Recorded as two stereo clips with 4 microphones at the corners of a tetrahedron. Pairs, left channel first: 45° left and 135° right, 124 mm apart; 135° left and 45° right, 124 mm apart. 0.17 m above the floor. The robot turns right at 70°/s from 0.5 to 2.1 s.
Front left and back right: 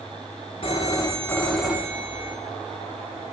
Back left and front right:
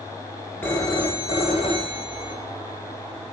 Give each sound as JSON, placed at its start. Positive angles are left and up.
{"t": 0.6, "sound": "a phone ringing", "azimuth_deg": 70, "distance_m": 1.4}